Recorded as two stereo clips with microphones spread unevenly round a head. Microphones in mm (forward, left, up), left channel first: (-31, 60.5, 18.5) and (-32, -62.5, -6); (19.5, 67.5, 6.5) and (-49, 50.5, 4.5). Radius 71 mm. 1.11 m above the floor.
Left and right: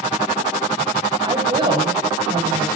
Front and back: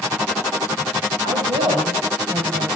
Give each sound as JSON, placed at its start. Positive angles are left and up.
{"t": 1.2, "sound": "a woman speaking", "azimuth_deg": -145, "distance_m": 7.0}